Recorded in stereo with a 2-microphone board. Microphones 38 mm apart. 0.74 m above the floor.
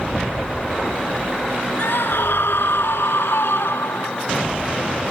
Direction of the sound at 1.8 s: 70° left (ahead or behind).